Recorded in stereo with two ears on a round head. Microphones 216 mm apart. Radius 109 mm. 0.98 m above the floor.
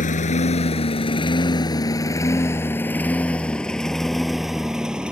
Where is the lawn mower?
35° left (ahead or behind); by 5.1 s 5° right (ahead or behind).